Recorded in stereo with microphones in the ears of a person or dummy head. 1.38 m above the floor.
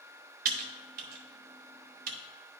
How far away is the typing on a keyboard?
About 0.7 m.